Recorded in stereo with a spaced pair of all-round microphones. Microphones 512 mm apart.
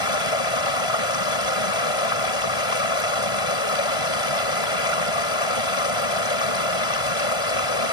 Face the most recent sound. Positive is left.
turn(degrees=85)